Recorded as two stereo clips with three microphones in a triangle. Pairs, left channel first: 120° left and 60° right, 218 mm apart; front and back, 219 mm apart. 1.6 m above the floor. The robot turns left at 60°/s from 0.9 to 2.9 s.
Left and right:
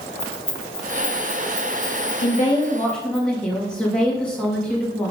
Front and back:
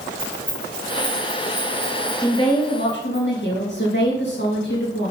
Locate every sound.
0.2 s keys jangling: 95° left, 4 m; by 3.2 s 25° right, 4 m
2.2 s a woman speaking: 75° left, 3 m; by 5.1 s 35° left, 3 m